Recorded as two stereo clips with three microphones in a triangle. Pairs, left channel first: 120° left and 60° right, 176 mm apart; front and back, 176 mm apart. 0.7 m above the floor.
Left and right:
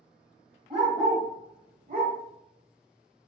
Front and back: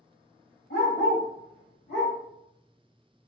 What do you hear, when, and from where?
0.7 s a dog barking: 5° left, 1.8 m; by 2.1 s 30° right, 1.1 m